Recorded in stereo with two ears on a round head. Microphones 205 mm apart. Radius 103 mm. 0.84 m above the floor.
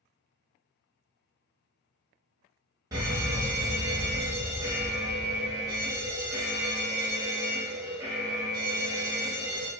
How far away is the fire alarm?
About 1.3 m.